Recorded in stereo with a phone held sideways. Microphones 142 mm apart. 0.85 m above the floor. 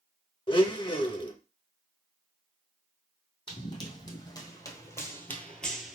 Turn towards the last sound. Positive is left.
turn(degrees=-5)  # may be behind; listen again after turning